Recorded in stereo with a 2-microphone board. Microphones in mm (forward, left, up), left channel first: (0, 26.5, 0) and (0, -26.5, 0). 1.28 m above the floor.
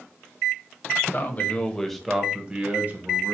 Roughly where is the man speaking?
Left.